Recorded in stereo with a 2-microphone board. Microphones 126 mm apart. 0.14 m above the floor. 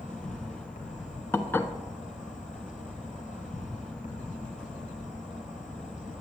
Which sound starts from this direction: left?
An insect, at 0.0 s.